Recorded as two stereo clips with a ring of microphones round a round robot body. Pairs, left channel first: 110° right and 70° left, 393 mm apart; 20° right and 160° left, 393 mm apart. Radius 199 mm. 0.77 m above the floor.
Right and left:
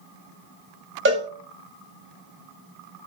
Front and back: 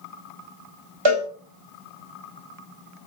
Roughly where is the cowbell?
Behind left.